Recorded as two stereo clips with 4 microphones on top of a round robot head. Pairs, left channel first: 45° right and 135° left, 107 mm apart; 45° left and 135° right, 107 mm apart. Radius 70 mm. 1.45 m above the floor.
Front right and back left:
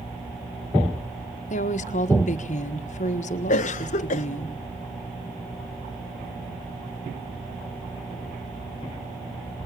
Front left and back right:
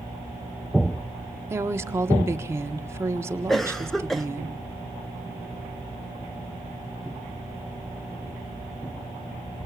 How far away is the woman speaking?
About 1.5 m.